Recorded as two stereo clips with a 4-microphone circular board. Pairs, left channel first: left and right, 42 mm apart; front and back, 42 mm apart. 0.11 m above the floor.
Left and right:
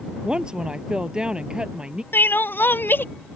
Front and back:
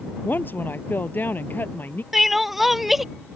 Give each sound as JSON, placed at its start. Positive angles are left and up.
{"t": 0.2, "sound": "a woman speaking", "azimuth_deg": -25}
{"t": 2.1, "sound": "crying", "azimuth_deg": 95}